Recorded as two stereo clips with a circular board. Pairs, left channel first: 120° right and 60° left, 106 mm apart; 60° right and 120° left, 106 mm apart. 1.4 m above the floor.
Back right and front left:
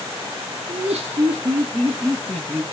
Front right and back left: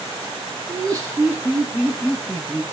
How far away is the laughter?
About 0.9 m.